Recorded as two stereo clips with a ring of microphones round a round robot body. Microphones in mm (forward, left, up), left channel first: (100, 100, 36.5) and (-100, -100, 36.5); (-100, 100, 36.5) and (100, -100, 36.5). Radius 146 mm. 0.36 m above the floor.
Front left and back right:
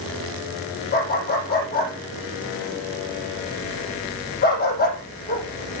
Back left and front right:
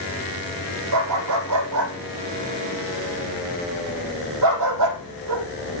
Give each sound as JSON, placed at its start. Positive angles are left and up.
{"t": 0.9, "sound": "a dog barking", "azimuth_deg": -15, "distance_m": 5.5}